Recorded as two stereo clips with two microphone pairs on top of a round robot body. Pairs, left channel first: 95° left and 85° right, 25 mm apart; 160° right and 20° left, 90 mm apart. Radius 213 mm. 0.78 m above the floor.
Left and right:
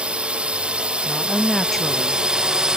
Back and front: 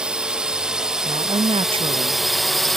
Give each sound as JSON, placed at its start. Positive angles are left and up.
{"t": 0.0, "sound": "a drone", "azimuth_deg": -55}
{"t": 1.1, "sound": "a woman speaking", "azimuth_deg": 15}